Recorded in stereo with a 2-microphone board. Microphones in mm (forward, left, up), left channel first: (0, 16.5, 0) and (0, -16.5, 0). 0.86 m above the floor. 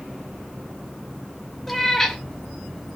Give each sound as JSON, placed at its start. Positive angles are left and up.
{"t": 1.7, "sound": "a cat meowing", "side_deg": 5, "distance_m": 0.5}